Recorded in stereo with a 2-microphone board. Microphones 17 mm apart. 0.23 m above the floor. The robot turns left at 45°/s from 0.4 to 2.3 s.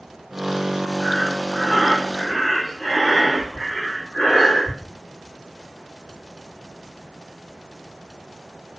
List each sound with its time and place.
1.0 s breathing: 165° right, 8 m; by 4.8 s 135° left, 8 m